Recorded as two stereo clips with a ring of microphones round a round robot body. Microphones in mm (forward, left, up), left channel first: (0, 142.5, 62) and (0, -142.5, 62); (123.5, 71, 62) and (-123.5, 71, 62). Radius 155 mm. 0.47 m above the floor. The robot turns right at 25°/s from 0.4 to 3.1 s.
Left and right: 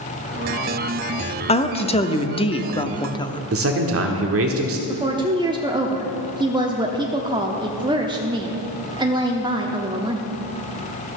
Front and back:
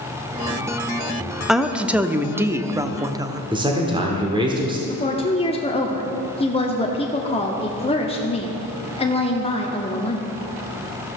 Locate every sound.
1.5 s a woman speaking: 95° left, 0.7 m; by 3.4 s 135° left, 0.7 m
3.5 s a man speaking: 110° right, 1.1 m
4.9 s a woman speaking: 35° right, 0.8 m